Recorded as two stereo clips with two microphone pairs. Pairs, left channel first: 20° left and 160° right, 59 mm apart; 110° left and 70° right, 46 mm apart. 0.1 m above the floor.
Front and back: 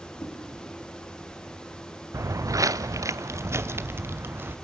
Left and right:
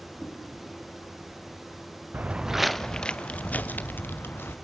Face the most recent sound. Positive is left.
turn(degrees=150)